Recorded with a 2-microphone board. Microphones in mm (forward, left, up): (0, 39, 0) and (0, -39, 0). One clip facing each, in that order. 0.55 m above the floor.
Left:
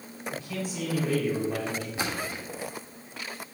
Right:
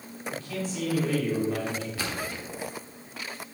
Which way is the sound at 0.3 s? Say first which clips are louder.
Right 1 dB; centre (ahead or behind).